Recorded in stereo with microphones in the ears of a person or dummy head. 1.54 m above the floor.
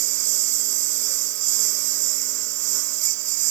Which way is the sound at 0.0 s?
60° right (ahead or behind).